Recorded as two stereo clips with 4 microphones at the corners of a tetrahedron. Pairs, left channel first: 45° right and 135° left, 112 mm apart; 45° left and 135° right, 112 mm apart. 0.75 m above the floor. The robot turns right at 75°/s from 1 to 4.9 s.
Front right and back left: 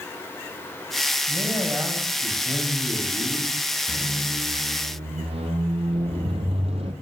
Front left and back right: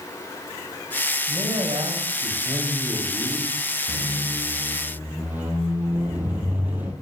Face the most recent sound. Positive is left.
turn(degrees=150)